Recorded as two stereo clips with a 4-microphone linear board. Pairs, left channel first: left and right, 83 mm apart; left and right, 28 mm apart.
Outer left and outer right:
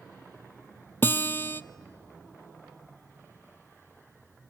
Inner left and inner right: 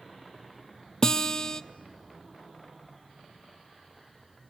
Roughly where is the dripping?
I don't hear dripping.